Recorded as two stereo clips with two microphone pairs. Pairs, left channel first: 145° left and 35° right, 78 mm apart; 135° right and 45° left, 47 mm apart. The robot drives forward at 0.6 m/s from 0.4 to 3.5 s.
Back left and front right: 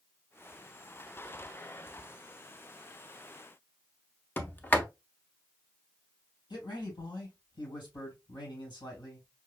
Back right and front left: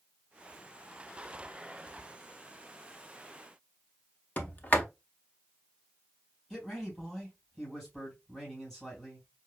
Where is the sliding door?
160° right, 0.5 m.